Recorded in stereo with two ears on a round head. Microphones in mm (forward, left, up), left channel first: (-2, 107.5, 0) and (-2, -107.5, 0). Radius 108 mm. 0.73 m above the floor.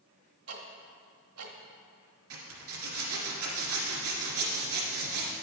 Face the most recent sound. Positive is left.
turn(degrees=-65)  # may be behind; listen again after turning